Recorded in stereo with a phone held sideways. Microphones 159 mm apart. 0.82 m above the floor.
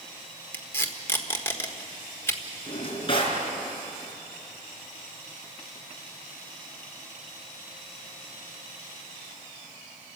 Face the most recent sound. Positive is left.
turn(degrees=35)  # may be behind; listen again after turning